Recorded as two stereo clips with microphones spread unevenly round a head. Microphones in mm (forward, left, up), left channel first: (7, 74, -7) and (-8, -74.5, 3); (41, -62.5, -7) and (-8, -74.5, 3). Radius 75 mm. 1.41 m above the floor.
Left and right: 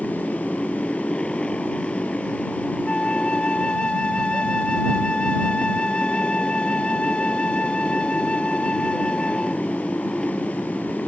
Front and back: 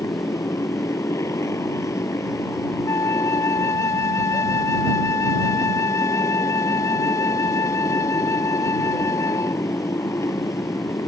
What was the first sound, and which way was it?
A motorcycle, straight ahead.